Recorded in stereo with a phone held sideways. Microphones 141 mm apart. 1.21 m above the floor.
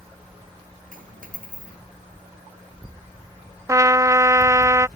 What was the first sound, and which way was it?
A dropped coin, 80° right.